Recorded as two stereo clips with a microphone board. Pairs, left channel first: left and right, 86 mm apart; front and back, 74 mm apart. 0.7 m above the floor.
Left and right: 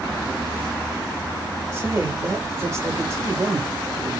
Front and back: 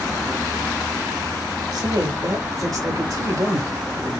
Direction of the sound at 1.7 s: 150° right.